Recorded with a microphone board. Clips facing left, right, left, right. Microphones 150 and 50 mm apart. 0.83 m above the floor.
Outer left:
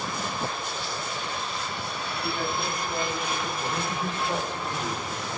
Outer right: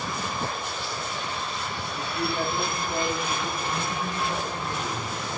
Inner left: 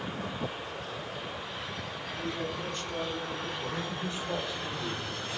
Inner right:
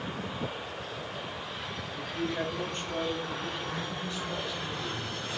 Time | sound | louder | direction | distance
2.0 | a woman speaking | outer right 4 dB, inner right 4 dB | 50° right (ahead or behind) | 2.5 m
3.6 | a man speaking | even, inner left 1 dB | 25° left (ahead or behind) | 2.5 m